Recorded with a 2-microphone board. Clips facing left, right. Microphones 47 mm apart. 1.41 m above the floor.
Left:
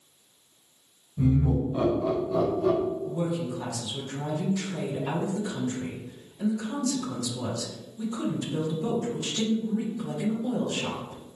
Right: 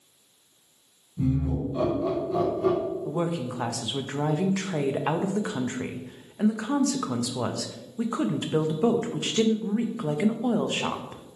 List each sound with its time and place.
1.2 s laughter: 35° left (ahead or behind), 1.7 m; by 2.8 s 35° right (ahead or behind), 1.1 m
3.0 s a woman speaking: 55° right (ahead or behind), 0.5 m